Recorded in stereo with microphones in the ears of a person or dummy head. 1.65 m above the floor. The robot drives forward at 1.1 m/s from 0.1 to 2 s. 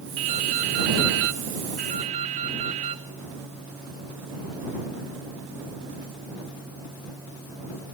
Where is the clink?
I don't hear a clink.